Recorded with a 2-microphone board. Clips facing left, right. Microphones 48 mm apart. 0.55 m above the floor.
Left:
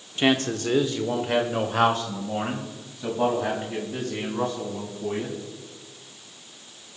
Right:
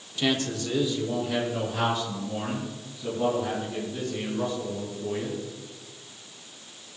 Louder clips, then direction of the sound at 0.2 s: Left 4 dB; 35° left (ahead or behind).